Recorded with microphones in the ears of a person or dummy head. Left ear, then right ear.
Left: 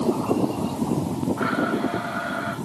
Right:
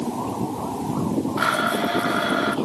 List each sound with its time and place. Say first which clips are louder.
1.4 s a blender: right 4 dB; 75° right (ahead or behind), 1.8 m